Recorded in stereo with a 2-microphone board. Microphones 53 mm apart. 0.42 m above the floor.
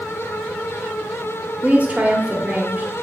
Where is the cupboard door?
I don't hear a cupboard door.